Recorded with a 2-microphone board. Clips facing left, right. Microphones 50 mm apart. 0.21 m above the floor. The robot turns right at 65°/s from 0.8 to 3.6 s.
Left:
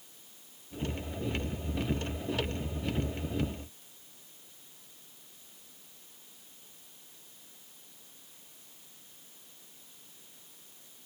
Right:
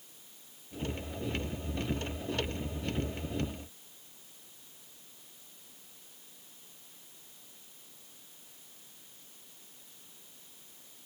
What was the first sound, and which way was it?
Only background noise.